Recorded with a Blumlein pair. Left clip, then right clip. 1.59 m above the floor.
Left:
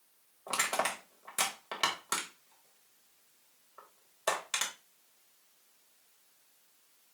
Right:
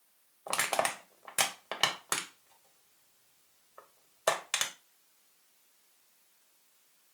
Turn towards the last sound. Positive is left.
turn(degrees=-20)